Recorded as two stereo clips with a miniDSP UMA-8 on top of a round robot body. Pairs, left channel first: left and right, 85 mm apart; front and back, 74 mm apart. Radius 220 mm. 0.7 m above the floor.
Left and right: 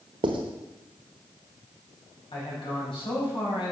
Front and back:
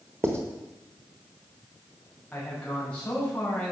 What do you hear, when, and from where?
0.2 s writing: 120° right, 0.9 m
2.3 s a man speaking: 75° left, 6 m